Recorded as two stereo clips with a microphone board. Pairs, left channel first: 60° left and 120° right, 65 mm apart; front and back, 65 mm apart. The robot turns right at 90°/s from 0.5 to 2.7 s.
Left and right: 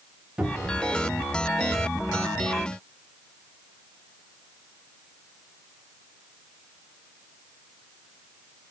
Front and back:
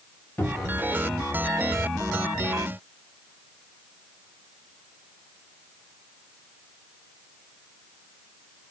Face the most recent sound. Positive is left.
turn(degrees=150)